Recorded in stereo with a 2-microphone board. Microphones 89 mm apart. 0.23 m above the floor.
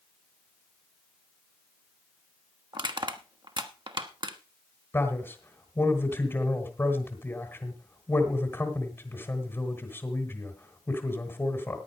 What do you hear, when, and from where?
2.7 s crushing: 60° right (ahead or behind), 1.1 m
4.9 s a man speaking: 30° left (ahead or behind), 1.9 m